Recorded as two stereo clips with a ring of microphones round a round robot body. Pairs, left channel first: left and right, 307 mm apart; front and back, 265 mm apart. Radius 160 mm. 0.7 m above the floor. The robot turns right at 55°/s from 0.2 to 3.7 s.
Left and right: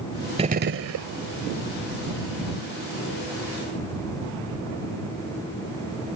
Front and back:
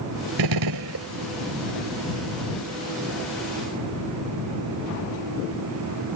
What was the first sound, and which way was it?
A gunshot, 165° right.